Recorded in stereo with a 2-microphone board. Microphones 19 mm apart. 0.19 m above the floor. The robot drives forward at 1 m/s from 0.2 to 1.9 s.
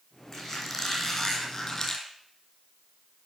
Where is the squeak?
10° left (ahead or behind), 3.5 m; by 2.0 s 20° left (ahead or behind), 2 m.